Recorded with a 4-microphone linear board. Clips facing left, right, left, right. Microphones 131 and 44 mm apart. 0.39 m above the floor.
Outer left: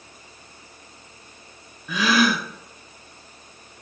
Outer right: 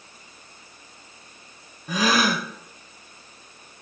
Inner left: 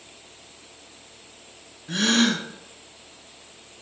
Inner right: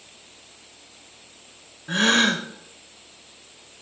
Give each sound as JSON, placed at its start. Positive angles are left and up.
{"t": 1.9, "sound": "a gasp", "side_deg": -40, "distance_m": 0.7}